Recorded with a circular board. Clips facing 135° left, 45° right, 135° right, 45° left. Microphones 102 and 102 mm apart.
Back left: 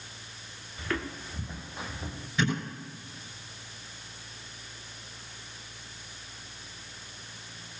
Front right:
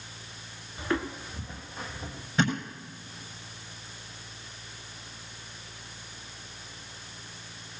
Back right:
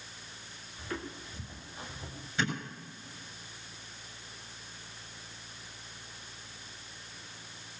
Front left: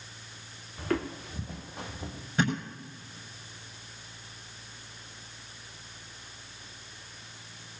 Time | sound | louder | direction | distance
0.8 | footsteps | front right 4 dB, front left 9 dB | 15° left | 0.9 m
2.4 | a thud | front right 2 dB, front left 5 dB | 5° left | 7 m